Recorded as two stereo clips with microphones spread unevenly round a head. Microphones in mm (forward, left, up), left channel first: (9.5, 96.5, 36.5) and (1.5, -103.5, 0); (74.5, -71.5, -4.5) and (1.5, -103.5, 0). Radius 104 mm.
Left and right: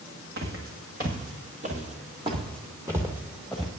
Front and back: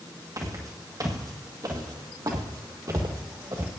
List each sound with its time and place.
0.4 s footsteps: 135° right, 2.5 m; by 3.7 s 165° left, 1.9 m